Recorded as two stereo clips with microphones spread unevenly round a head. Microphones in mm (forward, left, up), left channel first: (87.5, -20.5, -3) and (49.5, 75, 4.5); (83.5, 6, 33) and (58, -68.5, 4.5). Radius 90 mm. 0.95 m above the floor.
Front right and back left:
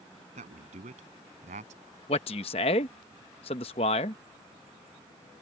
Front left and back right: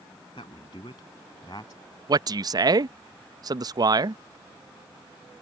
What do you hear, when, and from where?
0.3 s a man speaking: 130° left; by 2.0 s 140° left
2.1 s a man speaking: 105° right